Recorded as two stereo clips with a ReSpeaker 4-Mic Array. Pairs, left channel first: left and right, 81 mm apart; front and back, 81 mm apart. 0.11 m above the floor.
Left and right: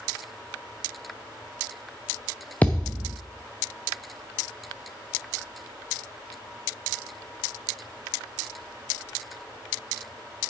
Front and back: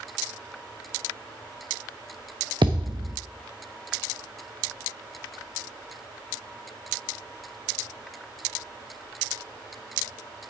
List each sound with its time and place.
2.6 s a thud: 160° left, 1.5 m